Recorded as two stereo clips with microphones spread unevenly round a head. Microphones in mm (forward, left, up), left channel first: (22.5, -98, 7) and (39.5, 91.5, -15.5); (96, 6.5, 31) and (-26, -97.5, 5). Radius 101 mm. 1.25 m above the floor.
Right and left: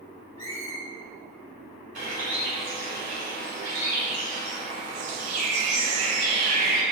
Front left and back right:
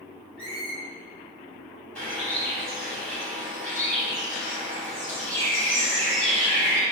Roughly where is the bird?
Left.